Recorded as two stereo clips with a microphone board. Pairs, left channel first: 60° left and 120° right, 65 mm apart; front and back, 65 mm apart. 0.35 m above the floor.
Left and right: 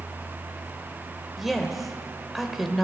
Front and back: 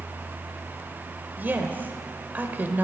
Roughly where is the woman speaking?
Behind left.